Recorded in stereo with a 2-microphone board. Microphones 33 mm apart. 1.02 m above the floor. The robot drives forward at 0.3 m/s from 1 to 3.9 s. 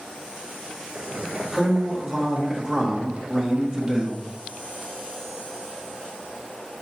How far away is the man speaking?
About 1.9 m.